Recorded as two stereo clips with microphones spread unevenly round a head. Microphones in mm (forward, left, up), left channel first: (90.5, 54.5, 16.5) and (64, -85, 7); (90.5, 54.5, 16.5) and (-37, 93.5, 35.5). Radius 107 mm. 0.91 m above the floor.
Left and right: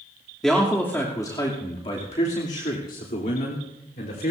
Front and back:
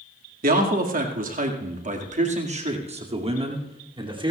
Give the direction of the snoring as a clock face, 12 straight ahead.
No snoring in this recording.